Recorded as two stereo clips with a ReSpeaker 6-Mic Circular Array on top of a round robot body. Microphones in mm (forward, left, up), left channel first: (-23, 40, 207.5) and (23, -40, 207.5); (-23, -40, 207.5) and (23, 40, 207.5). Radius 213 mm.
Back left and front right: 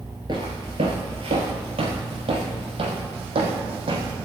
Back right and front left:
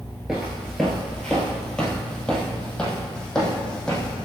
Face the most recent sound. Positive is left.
turn(degrees=-40)